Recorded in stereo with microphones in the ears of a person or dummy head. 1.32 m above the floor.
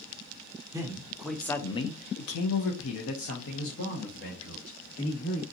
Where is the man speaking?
20° right (ahead or behind), 0.8 m; by 5.4 s 65° left (ahead or behind), 2 m.